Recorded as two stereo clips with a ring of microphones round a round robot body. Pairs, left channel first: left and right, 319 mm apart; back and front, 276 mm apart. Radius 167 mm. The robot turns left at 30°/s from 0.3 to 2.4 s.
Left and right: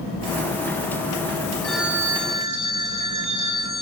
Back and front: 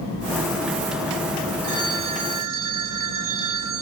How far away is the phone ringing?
About 3 m.